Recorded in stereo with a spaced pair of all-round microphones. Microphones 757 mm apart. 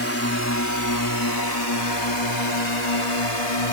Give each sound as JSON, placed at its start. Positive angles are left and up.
{"t": 0.0, "sound": "a drone", "side_deg": 15}